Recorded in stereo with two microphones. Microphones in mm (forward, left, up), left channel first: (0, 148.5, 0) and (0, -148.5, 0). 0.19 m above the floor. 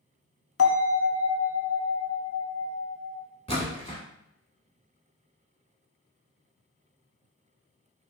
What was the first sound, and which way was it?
A bell, 50° left (ahead or behind).